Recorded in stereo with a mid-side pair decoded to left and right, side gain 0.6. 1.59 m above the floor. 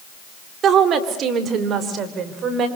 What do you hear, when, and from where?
0.6 s a woman speaking: 45° right, 3.5 m; by 2.7 s 50° right, 5.5 m